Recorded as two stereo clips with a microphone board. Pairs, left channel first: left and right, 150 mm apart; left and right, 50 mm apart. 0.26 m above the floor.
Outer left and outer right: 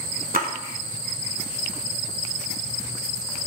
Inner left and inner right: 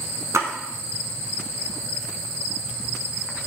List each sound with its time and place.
0.3 s a splash: 75° right (ahead or behind), 0.7 m